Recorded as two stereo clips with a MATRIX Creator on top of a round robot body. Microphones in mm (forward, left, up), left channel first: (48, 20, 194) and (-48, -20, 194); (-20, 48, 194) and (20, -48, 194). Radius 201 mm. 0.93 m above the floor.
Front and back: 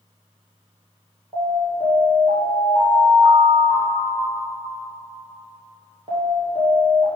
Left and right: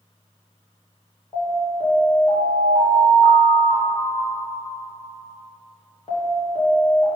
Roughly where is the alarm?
Behind.